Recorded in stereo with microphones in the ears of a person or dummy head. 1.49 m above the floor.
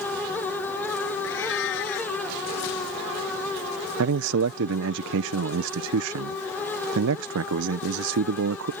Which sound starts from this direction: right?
A man speaking, at 4.0 s.